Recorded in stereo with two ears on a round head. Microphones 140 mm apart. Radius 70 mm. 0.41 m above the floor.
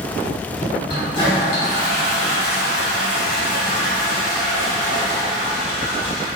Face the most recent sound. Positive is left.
turn(degrees=30)  # may be behind; listen again after turning